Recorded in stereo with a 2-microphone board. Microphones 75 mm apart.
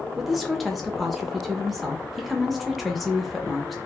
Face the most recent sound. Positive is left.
turn(degrees=0)  # may be behind; listen again after turning